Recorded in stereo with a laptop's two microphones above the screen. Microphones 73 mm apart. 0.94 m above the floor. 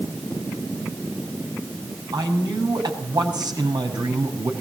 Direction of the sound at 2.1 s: 75° right (ahead or behind).